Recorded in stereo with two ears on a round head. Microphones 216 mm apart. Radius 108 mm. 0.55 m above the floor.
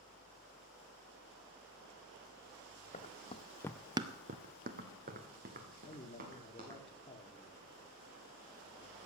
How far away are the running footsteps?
About 1.4 m.